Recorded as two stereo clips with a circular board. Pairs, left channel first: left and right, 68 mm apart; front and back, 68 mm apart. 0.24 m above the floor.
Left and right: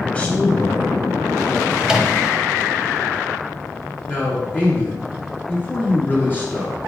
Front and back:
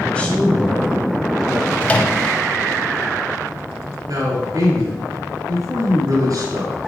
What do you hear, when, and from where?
0.1 s a man speaking: 45° left, 1.5 m; by 1.7 s 80° left, 2.5 m
1.8 s a microwave: 25° right, 0.8 m
4.1 s a man speaking: 150° left, 2.5 m